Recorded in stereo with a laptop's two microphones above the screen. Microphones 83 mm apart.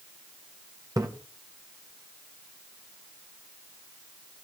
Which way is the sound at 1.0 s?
50° right (ahead or behind).